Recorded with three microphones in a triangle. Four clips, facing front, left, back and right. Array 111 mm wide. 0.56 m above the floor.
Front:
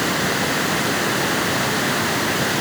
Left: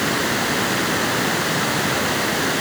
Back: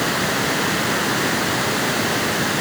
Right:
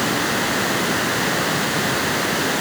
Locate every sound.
Only background noise.